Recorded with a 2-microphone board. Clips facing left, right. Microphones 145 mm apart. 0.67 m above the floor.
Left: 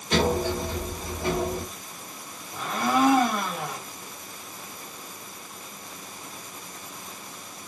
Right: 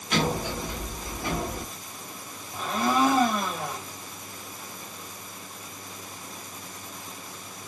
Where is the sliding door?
30° left (ahead or behind), 1.1 m.